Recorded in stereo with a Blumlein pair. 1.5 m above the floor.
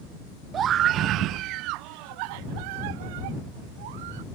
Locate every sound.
0.5 s a scream: 25° right; by 4.2 s 55° right